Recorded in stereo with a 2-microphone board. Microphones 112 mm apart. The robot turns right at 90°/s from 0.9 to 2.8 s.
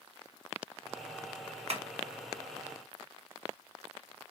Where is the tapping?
60° right (ahead or behind), 0.8 m; by 1.8 s 65° right (ahead or behind), 0.8 m.